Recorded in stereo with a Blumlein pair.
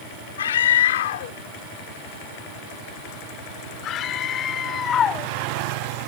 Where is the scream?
65° left; by 5.3 s 25° left.